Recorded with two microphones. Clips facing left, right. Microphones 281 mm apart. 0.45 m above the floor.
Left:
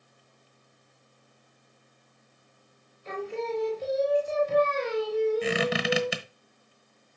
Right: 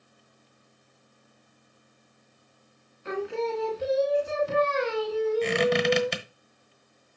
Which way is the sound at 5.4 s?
5° left (ahead or behind).